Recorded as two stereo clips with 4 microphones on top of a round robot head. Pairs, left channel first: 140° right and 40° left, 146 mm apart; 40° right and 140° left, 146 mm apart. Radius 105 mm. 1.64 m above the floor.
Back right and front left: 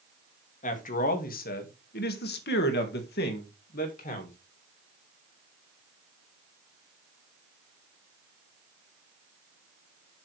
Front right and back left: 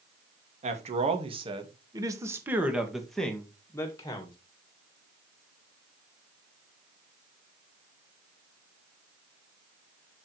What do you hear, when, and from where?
0.6 s a man speaking: 175° right, 2 m; by 4.4 s 105° right, 2.0 m